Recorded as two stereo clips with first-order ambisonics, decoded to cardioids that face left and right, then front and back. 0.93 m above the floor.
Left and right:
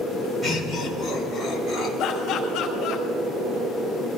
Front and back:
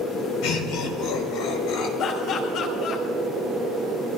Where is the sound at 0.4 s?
15° right, 5 m.